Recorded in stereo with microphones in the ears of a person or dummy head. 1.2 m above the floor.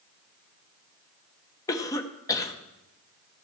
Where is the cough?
20° left (ahead or behind), 0.9 m.